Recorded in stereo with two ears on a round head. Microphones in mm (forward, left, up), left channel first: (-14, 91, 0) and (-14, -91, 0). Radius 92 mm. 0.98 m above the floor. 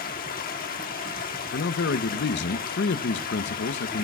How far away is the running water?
About 1.2 m.